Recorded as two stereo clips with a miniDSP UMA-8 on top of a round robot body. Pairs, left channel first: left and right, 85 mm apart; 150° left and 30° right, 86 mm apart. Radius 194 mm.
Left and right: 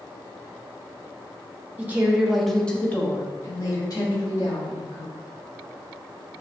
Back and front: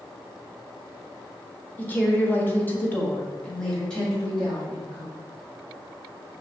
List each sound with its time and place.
1.8 s a woman speaking: 150° right, 1.5 m; by 5.1 s 65° left, 2.5 m